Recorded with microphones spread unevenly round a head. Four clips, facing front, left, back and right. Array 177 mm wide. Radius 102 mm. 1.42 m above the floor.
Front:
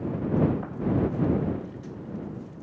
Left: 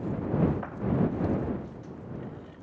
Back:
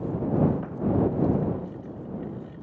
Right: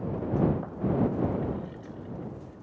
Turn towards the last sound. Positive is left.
No sound to turn to.